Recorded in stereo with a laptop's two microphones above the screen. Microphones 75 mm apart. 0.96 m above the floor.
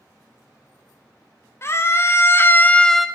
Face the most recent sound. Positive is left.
turn(degrees=-5)  # may be behind; listen again after turning